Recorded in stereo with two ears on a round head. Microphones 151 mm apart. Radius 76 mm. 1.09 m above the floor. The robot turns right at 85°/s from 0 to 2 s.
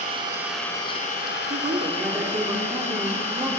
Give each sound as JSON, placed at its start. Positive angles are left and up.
{"t": 0.0, "sound": "an engine running", "azimuth_deg": -45, "distance_m": 4.0}
{"t": 1.5, "sound": "a woman speaking", "azimuth_deg": -55, "distance_m": 3.0}